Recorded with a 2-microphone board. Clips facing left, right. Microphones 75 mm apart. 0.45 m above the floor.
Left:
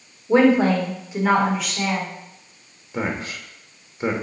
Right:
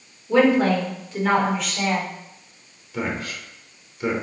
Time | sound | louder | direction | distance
0.3 | a woman speaking | left 1 dB | 30° left (ahead or behind) | 1.2 m
2.9 | a man speaking | left 1 dB | 25° left (ahead or behind) | 1.0 m